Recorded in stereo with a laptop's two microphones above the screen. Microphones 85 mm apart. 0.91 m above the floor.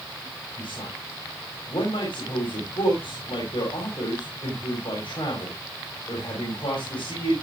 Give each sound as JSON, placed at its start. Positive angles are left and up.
{"t": 0.6, "sound": "a man speaking", "side_deg": 80, "distance_m": 6.0}